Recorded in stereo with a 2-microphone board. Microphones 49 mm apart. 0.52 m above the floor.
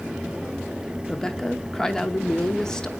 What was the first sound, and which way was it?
A woman speaking, 15° left (ahead or behind).